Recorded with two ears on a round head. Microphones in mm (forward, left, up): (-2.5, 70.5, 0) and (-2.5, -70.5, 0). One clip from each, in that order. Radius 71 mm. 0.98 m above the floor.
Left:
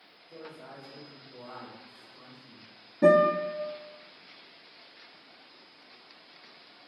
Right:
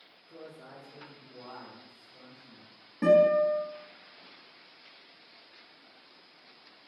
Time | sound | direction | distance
0.3 | a man speaking | 35° right (ahead or behind) | 1.2 m
3.0 | a guitar | 55° right (ahead or behind) | 1.3 m